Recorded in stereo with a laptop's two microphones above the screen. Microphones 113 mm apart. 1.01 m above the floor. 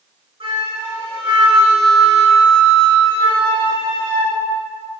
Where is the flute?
60° right (ahead or behind), 3.5 m.